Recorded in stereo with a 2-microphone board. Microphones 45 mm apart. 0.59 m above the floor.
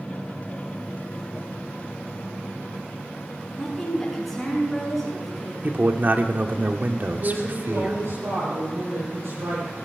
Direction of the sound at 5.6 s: 45° right (ahead or behind).